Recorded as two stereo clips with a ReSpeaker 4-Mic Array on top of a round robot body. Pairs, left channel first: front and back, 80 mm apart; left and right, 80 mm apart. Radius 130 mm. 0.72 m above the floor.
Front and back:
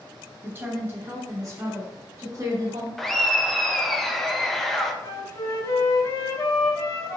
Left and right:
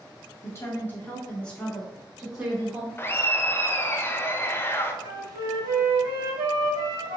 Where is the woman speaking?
125° left, 1.4 m; by 2.9 s 160° right, 1.6 m.